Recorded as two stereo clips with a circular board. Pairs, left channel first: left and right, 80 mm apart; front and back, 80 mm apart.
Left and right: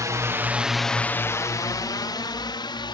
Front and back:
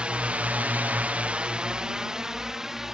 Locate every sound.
0.0 s a drone: 110° right; by 2.9 s 95° left